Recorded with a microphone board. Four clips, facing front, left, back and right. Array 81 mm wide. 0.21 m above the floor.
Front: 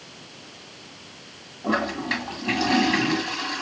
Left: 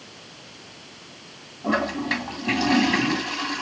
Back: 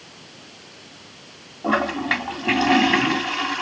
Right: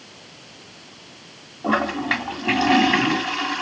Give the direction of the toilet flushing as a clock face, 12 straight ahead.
5 o'clock.